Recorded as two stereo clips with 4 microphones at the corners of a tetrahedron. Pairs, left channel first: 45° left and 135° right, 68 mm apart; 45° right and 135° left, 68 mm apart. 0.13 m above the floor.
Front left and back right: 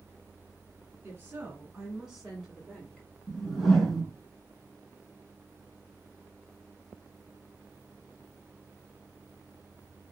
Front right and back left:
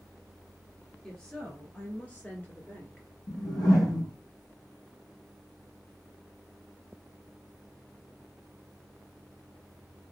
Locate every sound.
1.0 s a woman speaking: 105° right, 1.8 m; by 3.1 s 10° right, 1.6 m
3.3 s a whoosh: 45° right, 3.5 m